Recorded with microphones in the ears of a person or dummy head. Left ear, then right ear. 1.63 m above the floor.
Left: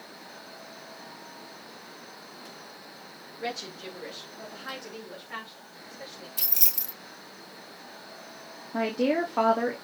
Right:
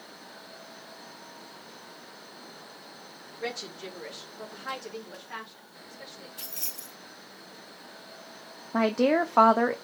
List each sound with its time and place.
3.4 s a woman speaking: 25° right (ahead or behind), 2.5 m; by 6.3 s 10° right (ahead or behind), 4 m
6.4 s keys jangling: 30° left (ahead or behind), 1.0 m
8.7 s a woman speaking: 40° right (ahead or behind), 0.7 m